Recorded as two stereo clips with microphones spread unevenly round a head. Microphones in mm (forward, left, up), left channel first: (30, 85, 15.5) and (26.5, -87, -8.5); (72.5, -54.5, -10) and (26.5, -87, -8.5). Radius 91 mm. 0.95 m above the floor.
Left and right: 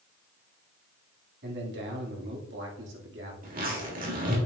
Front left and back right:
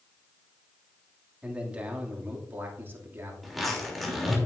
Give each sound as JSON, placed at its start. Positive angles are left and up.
{"t": 1.4, "sound": "a man speaking", "azimuth_deg": -75, "distance_m": 2.5}
{"t": 3.4, "sound": "a zipper", "azimuth_deg": -55, "distance_m": 3.0}